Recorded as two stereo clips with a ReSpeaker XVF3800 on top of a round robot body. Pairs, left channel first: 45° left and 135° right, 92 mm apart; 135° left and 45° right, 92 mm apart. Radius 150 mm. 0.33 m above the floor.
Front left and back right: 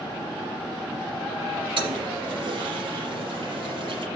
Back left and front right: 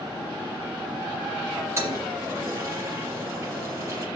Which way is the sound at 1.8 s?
110° right.